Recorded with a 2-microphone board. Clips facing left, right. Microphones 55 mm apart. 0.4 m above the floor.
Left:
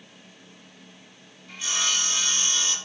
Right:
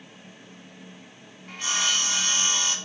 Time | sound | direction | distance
1.5 | sawing | 50° right (ahead or behind) | 1.4 m